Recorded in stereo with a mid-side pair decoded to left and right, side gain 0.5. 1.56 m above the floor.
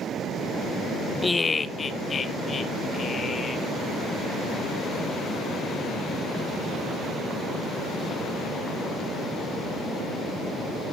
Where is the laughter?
15° left, 0.6 m; by 3.7 s 40° left, 4 m.